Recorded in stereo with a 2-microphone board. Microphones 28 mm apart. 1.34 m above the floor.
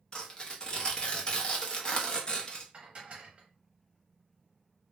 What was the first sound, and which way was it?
Tearing paper, 30° left (ahead or behind).